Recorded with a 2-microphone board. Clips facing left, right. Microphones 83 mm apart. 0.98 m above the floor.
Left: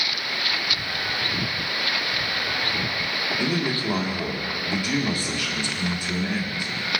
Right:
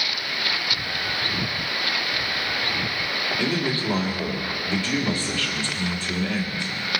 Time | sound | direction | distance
3.4 | a man speaking | 15° left (ahead or behind) | 1.8 m